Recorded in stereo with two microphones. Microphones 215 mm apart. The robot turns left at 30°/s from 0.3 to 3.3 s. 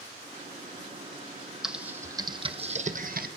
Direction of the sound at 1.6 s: Centre (ahead or behind).